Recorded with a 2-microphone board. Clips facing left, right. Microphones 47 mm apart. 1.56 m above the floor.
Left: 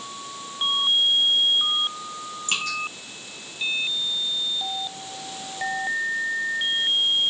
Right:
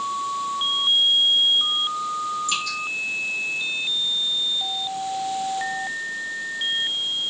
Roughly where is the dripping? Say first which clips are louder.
Right 1 dB; left.